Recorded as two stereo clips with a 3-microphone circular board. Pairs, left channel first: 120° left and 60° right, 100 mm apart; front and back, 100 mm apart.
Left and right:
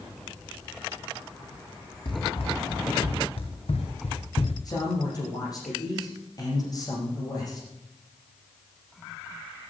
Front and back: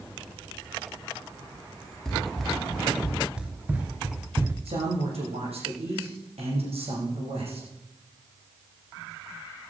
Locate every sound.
2.0 s running footsteps: 85° left, 3 m; by 4.5 s 115° left, 2 m
4.7 s a man speaking: 170° left, 8.5 m